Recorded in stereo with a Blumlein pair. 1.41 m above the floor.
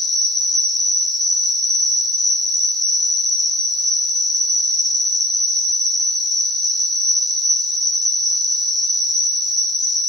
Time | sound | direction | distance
0.0 | an insect | straight ahead | 0.8 m